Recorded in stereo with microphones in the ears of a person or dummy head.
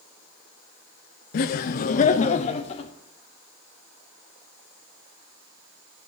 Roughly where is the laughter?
Left.